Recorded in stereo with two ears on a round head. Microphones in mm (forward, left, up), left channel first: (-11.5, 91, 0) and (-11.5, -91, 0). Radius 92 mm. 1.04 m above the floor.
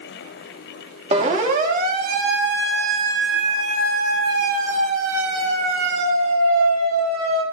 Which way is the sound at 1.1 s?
35° right (ahead or behind).